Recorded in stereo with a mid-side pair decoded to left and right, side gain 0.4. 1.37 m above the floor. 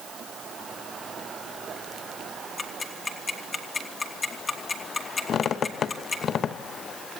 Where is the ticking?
35° left, 2.5 m.